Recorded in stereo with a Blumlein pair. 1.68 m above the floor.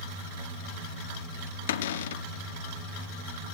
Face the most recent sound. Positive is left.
turn(degrees=60)